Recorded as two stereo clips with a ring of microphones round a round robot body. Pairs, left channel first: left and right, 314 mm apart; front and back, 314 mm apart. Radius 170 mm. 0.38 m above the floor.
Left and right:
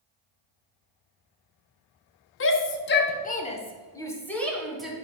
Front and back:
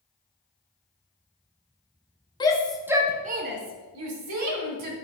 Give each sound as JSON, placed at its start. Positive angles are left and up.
{"t": 2.4, "sound": "a shout", "azimuth_deg": 70, "distance_m": 1.1}